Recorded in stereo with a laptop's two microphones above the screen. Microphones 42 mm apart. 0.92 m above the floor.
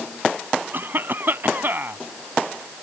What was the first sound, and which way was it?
A cough, 55° right (ahead or behind).